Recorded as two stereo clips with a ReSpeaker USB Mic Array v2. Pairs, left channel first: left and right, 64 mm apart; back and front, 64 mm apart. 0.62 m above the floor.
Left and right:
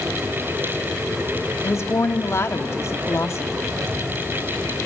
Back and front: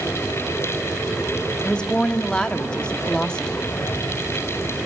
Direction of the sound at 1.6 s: 110° left.